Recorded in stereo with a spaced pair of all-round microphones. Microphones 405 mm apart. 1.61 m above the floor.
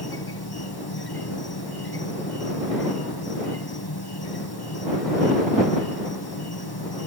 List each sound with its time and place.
0.0 s an insect: 65° left (ahead or behind)